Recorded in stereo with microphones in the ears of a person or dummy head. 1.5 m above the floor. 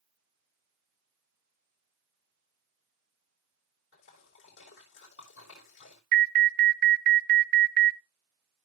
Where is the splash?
75° left (ahead or behind), 3.5 m.